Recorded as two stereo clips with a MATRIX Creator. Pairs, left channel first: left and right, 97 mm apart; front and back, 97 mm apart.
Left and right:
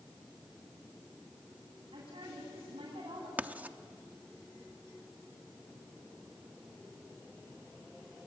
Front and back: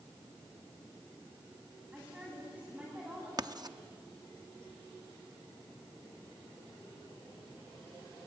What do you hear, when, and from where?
1.9 s a woman speaking: 100° right, 9.5 m
3.4 s writing: 160° right, 0.7 m